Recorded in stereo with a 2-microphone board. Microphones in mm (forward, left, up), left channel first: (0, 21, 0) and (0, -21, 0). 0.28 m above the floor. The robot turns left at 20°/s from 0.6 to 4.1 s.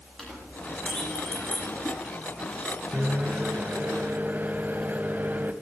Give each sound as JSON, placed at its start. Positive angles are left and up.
{"t": 0.2, "sound": "a clink", "side_deg": 25, "distance_m": 7.5}
{"t": 2.9, "sound": "a microwave", "side_deg": -35, "distance_m": 1.7}